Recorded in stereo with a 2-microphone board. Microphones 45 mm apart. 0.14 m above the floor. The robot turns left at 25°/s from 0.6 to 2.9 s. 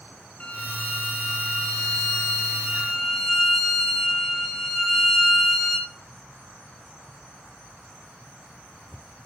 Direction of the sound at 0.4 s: 70° left.